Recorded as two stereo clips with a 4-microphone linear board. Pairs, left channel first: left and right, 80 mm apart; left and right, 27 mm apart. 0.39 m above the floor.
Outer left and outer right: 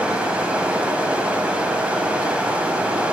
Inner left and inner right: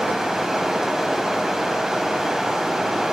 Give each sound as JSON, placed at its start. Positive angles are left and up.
{"t": 0.0, "sound": "running water", "side_deg": -15, "distance_m": 0.9}